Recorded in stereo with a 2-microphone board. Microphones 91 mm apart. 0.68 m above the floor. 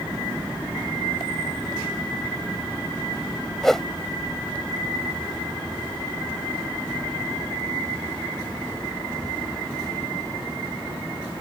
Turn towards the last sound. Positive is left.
turn(degrees=5)  # may be behind; listen again after turning